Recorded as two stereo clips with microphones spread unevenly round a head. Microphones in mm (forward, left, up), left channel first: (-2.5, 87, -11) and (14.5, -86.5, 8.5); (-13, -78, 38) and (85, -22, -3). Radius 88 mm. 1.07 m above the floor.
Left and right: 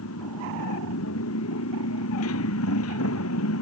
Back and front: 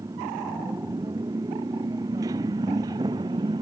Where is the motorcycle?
105° left; by 3.6 s 100° left.